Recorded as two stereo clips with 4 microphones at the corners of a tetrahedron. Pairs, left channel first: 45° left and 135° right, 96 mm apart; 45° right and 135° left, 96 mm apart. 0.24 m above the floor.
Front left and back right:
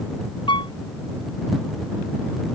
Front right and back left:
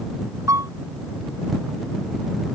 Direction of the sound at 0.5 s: 80° left.